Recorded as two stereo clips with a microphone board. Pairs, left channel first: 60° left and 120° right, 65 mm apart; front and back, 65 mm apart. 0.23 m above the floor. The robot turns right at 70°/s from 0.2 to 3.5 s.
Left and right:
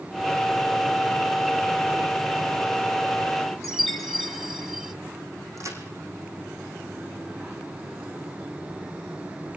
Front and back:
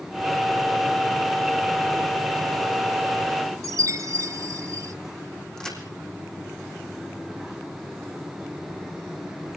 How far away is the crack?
About 4.5 m.